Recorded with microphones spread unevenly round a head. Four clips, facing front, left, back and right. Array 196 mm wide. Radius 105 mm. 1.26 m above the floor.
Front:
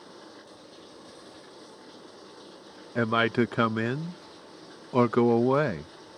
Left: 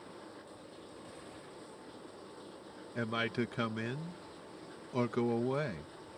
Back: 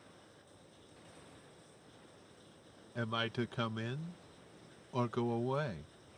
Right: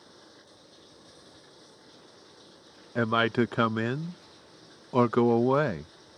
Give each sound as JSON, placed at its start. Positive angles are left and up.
{"t": 0.0, "sound": "running water", "azimuth_deg": 15}
{"t": 3.0, "sound": "a man speaking", "azimuth_deg": -35}